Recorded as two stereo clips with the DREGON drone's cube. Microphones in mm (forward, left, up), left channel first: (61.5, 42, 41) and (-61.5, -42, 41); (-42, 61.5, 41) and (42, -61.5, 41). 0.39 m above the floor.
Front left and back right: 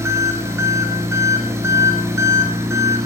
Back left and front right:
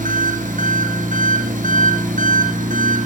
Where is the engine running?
75° right, 4 m.